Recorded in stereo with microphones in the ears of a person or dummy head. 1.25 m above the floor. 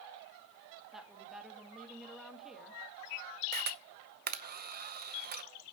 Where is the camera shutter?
40° right (ahead or behind), 0.6 m.